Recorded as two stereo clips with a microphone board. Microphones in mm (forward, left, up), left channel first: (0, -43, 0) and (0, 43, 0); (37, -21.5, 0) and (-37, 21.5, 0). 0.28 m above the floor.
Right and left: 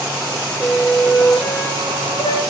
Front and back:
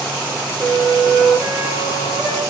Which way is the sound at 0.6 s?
130° right.